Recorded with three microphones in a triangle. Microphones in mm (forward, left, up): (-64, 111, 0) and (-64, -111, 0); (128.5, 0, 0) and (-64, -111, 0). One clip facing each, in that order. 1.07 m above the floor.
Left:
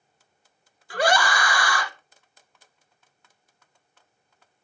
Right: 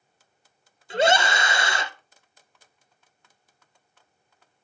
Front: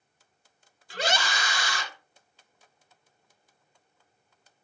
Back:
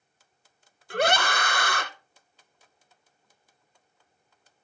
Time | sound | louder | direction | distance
0.9 | a scream | right 2 dB, back 6 dB | 155° right | 0.9 m